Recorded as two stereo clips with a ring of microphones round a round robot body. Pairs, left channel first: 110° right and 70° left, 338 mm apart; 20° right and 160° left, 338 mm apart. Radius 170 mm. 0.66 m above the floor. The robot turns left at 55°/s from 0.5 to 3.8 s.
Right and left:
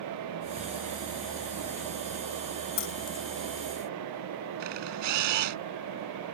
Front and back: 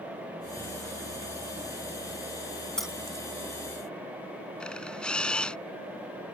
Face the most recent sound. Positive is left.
turn(degrees=65)